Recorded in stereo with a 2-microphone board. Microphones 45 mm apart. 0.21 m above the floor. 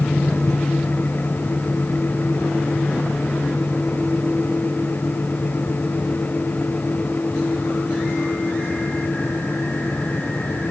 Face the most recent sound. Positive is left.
No sound to turn to.